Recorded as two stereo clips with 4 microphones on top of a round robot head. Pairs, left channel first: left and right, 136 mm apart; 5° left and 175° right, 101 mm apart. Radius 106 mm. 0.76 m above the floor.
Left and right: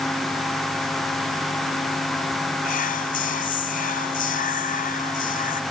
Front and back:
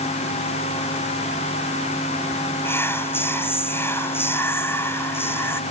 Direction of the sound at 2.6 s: 70° left.